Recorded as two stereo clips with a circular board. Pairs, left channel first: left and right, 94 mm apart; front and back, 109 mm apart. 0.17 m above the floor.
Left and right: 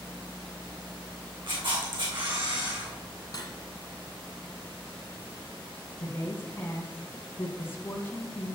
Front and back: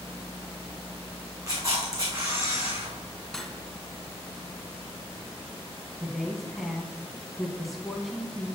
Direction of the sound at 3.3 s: 85° left.